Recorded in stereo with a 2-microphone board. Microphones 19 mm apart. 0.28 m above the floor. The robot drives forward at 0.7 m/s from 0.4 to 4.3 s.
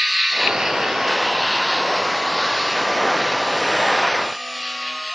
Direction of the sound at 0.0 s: 50° right (ahead or behind).